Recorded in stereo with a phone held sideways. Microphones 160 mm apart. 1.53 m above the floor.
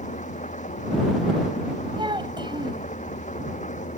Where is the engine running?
50° left (ahead or behind).